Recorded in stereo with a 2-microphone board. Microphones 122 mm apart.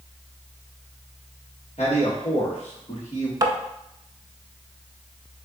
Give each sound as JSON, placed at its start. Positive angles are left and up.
{"t": 1.8, "sound": "a man speaking", "side_deg": 60, "distance_m": 2.5}
{"t": 3.4, "sound": "tapping", "side_deg": -30, "distance_m": 0.6}